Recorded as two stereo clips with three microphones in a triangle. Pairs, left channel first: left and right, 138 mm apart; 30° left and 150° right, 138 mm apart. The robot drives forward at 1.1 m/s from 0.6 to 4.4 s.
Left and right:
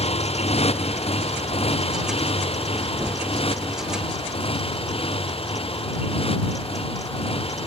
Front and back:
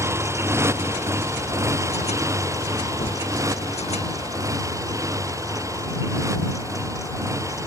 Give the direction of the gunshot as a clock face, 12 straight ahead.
12 o'clock.